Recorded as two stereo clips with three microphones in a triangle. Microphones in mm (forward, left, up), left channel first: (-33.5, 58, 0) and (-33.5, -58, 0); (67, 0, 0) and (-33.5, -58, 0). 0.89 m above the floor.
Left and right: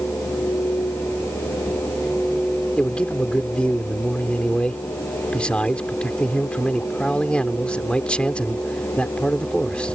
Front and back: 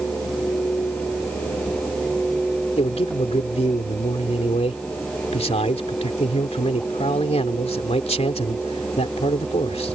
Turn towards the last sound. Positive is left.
turn(degrees=10)